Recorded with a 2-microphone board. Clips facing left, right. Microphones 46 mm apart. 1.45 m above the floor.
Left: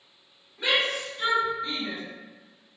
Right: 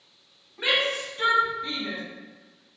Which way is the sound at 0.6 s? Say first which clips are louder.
Right 1 dB; 35° right (ahead or behind).